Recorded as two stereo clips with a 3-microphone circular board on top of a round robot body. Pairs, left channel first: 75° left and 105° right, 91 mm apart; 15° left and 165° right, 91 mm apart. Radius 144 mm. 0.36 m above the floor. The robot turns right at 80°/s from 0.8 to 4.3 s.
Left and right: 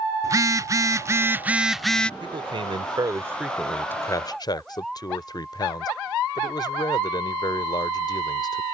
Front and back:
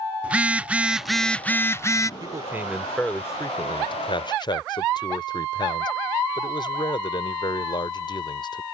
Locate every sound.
0.2 s a phone buzzing: 100° right; by 2.1 s 5° left
2.2 s a man speaking: 130° right; by 8.7 s 40° left